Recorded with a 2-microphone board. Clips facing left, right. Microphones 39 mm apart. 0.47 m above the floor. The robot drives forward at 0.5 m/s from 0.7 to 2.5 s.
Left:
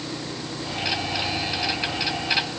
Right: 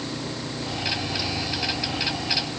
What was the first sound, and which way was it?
Only background noise.